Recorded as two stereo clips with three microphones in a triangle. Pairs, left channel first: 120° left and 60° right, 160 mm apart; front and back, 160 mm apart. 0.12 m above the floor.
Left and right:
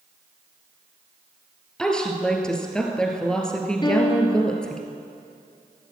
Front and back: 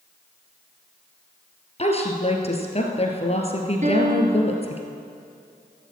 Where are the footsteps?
No footsteps in this recording.